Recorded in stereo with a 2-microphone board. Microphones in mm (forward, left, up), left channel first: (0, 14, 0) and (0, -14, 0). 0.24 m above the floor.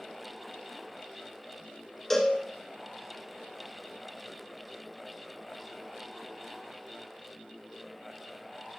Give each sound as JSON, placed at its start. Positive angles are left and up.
{"t": 2.1, "sound": "a cowbell", "side_deg": 20, "distance_m": 1.8}